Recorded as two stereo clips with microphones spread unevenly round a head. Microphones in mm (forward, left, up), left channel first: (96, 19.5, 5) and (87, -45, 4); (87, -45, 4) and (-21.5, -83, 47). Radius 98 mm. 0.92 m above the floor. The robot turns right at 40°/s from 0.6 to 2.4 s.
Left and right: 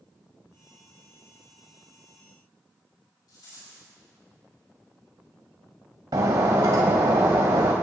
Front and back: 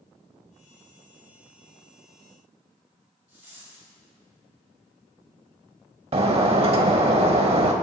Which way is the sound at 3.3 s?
110° left.